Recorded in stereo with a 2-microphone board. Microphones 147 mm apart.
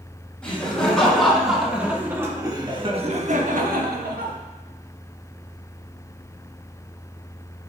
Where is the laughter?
5° left (ahead or behind), 2.5 m; by 4.3 s 80° right, 1.3 m.